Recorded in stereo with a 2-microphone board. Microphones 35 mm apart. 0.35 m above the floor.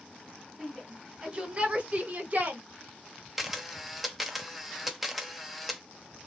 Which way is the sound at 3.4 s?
5° right (ahead or behind).